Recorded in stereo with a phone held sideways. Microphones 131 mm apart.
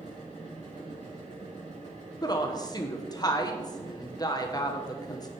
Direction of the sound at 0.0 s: 65° right (ahead or behind).